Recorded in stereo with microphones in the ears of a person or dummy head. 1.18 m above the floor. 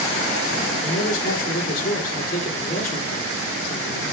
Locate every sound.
0.8 s a man speaking: 55° left (ahead or behind), 2.5 m